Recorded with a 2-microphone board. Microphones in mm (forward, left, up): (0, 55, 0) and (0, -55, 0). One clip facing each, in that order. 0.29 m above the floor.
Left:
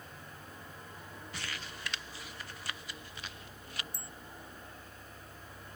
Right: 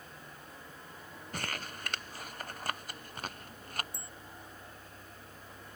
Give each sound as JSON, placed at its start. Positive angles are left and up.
{"t": 1.3, "sound": "crumpling", "side_deg": -55}
{"t": 3.9, "sound": "a bicycle bell", "side_deg": -65}